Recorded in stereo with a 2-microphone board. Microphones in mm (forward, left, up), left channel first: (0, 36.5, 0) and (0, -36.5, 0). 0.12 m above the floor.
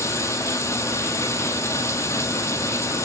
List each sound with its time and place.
0.0 s running water: 40° left (ahead or behind), 0.9 m